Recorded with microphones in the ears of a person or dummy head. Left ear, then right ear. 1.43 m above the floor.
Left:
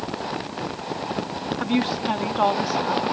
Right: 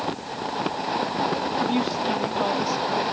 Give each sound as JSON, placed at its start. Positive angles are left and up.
{"t": 1.6, "sound": "a woman speaking", "side_deg": 20}